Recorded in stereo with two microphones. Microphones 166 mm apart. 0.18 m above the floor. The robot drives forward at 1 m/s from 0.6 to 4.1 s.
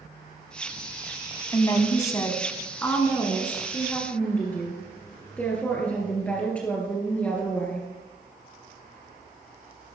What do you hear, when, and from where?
1.5 s a woman speaking: 20° left (ahead or behind), 1.1 m; by 7.9 s 10° left (ahead or behind), 2.5 m